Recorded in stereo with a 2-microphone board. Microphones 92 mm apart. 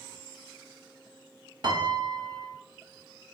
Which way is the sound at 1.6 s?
55° right (ahead or behind).